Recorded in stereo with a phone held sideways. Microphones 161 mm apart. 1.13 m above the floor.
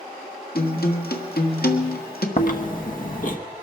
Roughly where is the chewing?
Left.